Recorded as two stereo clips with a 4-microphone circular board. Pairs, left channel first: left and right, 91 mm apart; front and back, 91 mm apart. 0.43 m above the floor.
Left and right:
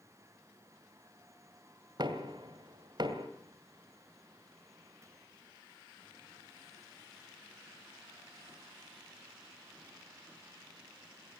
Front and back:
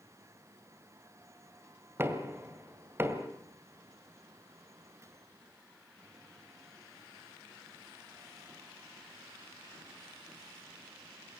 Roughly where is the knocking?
Behind right.